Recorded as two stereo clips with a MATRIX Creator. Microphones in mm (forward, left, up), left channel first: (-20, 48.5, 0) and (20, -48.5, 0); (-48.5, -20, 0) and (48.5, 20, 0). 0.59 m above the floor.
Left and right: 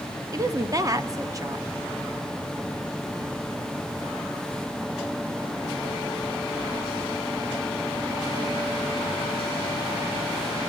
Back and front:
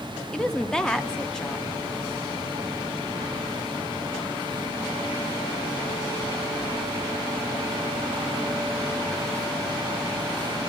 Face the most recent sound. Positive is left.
turn(degrees=-80)